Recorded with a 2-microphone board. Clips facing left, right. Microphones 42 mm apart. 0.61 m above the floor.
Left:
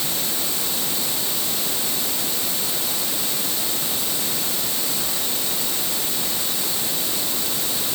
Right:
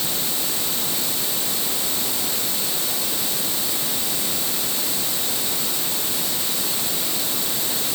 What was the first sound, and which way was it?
Only background noise.